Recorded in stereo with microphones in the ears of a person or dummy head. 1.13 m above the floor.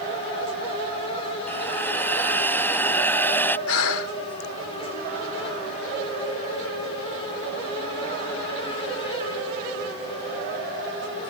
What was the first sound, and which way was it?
A hiss, 10° left (ahead or behind).